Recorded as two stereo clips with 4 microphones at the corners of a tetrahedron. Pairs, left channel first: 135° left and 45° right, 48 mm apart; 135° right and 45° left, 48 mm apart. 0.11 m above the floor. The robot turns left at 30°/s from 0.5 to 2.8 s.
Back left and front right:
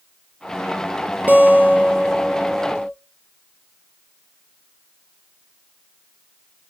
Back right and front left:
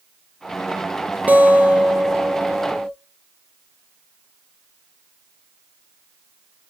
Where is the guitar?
5° right, 0.5 m; by 2.9 s 50° right, 0.5 m.